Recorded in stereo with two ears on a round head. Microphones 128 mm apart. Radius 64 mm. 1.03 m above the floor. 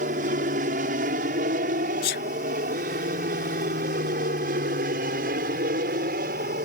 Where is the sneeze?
80° left.